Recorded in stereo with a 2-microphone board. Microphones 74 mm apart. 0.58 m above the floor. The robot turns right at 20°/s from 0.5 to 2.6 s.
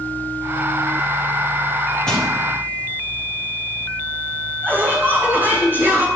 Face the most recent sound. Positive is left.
turn(degrees=-30)  # may be behind; listen again after turning